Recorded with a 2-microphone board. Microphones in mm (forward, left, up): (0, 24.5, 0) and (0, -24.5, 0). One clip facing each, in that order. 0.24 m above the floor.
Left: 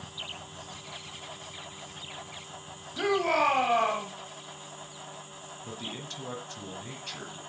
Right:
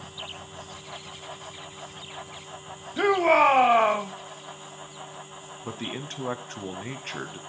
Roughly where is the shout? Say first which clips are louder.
Right 6 dB; right.